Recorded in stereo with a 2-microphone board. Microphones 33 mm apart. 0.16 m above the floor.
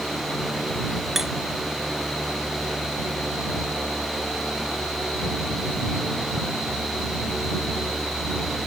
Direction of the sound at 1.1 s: 15° right (ahead or behind).